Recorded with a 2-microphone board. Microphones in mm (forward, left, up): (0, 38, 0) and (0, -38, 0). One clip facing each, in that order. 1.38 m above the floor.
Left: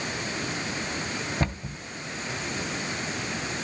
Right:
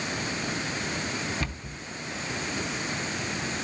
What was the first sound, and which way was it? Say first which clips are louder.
A cupboard door: left 5 dB; 35° left (ahead or behind).